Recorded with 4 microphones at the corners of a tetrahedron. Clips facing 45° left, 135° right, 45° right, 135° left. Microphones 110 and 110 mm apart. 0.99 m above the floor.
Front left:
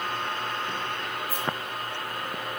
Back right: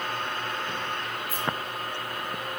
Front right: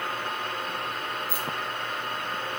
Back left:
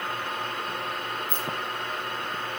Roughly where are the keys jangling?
Ahead left.